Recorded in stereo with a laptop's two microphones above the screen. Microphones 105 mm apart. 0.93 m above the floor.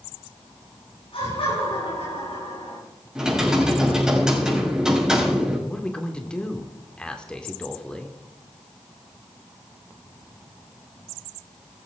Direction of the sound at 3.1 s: 5° right (ahead or behind).